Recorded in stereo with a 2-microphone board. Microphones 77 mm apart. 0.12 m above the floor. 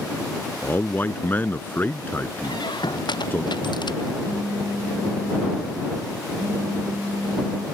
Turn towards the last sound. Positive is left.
turn(degrees=-30)  # may be behind; listen again after turning